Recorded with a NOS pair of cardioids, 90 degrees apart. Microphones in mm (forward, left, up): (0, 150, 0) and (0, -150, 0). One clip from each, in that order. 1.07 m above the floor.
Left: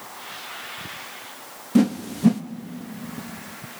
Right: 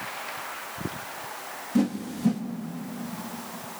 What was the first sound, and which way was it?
A whoosh, 35° left.